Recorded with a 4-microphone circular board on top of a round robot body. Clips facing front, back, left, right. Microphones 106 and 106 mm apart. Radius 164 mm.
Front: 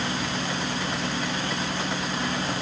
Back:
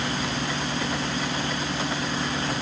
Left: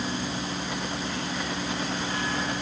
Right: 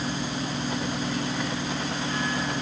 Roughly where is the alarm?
No alarm in this recording.